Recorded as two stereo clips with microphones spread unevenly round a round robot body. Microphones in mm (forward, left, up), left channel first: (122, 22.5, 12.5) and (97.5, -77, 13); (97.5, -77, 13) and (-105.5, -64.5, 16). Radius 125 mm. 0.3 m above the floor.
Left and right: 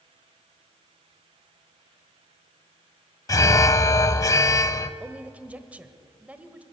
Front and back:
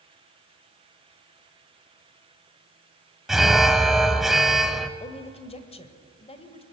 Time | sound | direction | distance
3.3 | an alarm | 90° left | 0.6 m
5.0 | a woman speaking | 35° right | 1.4 m